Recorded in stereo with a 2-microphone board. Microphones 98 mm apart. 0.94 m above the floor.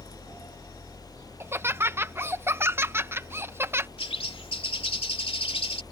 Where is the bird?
75° left (ahead or behind).